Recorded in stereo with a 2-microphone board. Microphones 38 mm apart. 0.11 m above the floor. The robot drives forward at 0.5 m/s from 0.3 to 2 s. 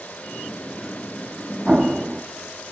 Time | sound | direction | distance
1.7 | an explosion | 10° right (ahead or behind) | 1.0 m